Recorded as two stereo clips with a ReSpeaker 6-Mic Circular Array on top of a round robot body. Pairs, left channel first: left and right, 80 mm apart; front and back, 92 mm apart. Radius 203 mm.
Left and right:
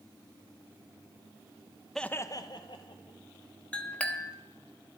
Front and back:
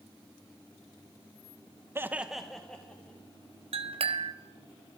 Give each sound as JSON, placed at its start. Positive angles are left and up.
{"t": 1.9, "sound": "laughter", "azimuth_deg": 170, "distance_m": 0.7}
{"t": 3.7, "sound": "a clink", "azimuth_deg": 165, "distance_m": 0.8}